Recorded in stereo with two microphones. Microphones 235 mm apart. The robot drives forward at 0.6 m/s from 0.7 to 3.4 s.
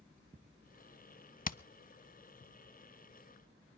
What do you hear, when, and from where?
1.4 s hammering: 35° left (ahead or behind), 0.6 m; by 1.6 s 40° left (ahead or behind), 0.5 m